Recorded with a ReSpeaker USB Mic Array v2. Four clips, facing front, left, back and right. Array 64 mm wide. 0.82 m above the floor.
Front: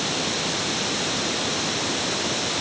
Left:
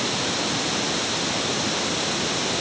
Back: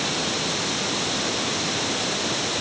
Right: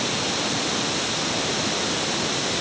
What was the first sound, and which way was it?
Only background noise.